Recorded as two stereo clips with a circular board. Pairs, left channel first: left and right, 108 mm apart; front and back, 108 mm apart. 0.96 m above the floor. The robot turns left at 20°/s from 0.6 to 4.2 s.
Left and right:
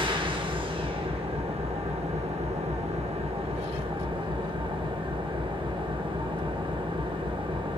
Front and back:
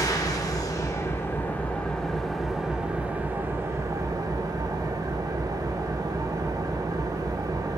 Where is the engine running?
55° right, 0.9 m; by 7.8 s 125° right, 0.9 m.